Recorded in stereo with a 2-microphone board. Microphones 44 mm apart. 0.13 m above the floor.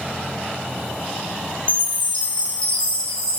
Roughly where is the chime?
Left.